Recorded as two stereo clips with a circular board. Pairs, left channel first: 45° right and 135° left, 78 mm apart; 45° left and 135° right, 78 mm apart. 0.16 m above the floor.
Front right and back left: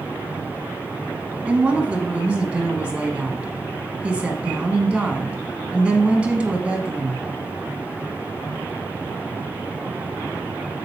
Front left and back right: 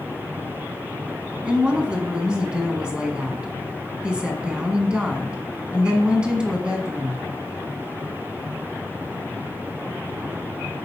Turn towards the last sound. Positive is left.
turn(degrees=175)